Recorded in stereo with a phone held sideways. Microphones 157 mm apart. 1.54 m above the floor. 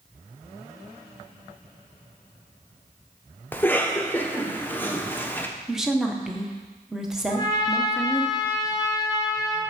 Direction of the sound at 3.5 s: 10° left (ahead or behind).